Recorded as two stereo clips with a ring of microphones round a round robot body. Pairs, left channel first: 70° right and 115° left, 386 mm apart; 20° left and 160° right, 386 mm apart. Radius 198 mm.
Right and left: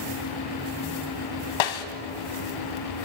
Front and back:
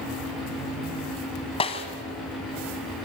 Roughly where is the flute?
I don't hear a flute.